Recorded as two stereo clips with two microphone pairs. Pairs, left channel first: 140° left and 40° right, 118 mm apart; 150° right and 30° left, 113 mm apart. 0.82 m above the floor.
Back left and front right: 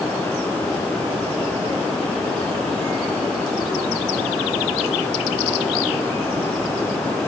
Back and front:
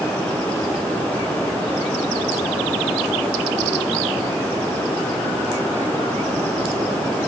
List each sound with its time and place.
Only background noise.